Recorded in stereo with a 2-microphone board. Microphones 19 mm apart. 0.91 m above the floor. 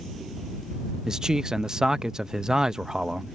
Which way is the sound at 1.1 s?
35° right (ahead or behind).